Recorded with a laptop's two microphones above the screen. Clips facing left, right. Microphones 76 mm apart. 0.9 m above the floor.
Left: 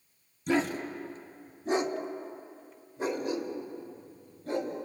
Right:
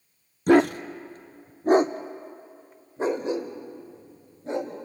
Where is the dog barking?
60° right (ahead or behind), 0.6 m; by 4.8 s 25° right (ahead or behind), 2.5 m.